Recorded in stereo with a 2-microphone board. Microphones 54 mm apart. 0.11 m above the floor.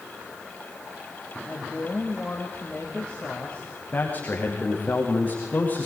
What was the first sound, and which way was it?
A woman speaking, 20° left (ahead or behind).